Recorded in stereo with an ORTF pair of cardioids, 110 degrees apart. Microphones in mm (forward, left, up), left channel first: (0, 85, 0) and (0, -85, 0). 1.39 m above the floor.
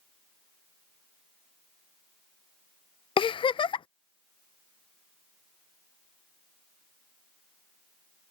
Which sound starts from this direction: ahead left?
A giggle, at 3.2 s.